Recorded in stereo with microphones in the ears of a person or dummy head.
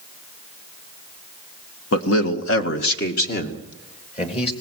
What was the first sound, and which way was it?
A man speaking, 85° left.